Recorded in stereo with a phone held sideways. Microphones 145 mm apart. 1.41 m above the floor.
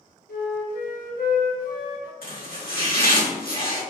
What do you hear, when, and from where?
0.3 s a flute: 80° left, 1.0 m
2.2 s chopping: 85° left, 2.0 m